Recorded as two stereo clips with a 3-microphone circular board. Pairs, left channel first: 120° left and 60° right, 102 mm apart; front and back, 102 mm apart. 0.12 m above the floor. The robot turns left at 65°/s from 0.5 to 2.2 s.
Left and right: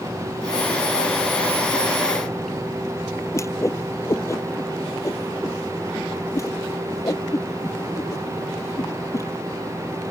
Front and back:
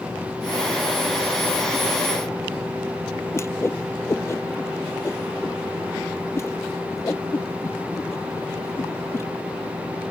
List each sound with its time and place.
3.3 s a whoosh: 60° left